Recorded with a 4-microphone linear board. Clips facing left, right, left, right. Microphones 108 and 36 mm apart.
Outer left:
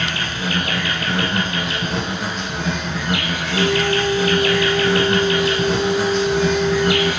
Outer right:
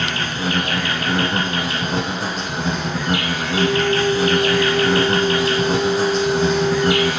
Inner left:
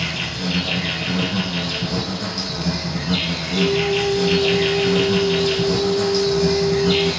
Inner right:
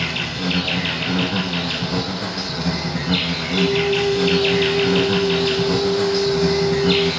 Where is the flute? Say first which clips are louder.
Even, inner right 1 dB; 75° right (ahead or behind), 1.6 m.